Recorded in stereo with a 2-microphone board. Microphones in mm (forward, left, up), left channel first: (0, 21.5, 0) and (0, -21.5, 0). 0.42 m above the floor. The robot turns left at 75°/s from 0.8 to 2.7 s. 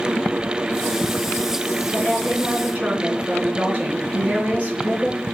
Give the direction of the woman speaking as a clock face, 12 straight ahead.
11 o'clock.